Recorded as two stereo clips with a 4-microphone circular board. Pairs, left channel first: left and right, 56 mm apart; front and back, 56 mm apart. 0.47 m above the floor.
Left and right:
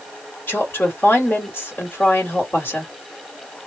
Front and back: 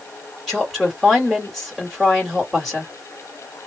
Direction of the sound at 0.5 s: 85° left.